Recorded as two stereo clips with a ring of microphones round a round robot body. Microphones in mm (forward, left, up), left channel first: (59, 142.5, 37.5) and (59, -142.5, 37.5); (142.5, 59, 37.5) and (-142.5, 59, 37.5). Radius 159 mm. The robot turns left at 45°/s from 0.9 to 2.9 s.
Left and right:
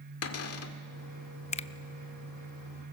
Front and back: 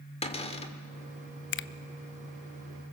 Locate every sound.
0.2 s a cupboard door: 65° left, 1.7 m
1.5 s a finger snap: 30° left, 0.6 m; by 1.7 s 25° left, 0.6 m